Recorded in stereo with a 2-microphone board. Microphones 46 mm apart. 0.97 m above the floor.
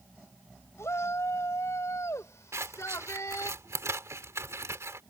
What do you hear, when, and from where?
0.8 s a shout: 70° left (ahead or behind); by 3.5 s 75° left (ahead or behind)
2.5 s scissors: 75° right (ahead or behind)